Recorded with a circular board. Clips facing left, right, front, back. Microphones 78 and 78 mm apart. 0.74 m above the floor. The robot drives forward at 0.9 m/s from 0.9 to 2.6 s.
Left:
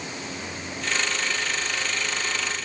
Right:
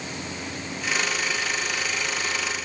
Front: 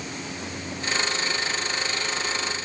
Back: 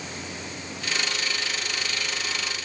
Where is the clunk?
I don't hear a clunk.